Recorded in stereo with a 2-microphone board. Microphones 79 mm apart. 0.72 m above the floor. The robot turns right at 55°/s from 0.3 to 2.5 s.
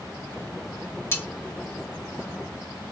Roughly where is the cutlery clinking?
Left.